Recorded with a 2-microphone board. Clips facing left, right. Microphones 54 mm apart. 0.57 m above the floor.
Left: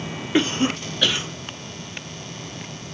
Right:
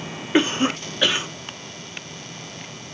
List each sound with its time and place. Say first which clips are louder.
0.3 s a cough: right 1 dB; 25° right (ahead or behind), 0.7 m